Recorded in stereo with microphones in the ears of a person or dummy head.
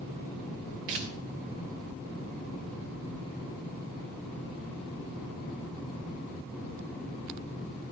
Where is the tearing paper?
40° right (ahead or behind), 0.7 m.